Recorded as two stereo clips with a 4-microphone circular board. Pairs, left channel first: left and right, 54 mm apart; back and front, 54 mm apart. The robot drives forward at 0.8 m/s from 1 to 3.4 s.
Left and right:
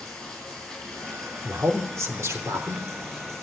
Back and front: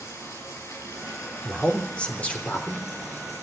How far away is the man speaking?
About 3 m.